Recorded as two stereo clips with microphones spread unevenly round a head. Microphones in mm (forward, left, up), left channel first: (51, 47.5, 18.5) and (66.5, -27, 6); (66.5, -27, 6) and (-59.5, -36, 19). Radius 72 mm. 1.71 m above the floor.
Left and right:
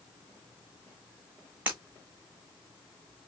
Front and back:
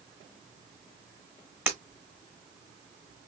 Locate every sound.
1.7 s breaking glass: 145° right, 1.6 m